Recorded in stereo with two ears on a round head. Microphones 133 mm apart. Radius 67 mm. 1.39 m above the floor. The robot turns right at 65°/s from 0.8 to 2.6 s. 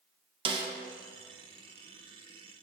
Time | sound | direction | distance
0.5 | a snare drum | 35° right (ahead or behind) | 1.0 m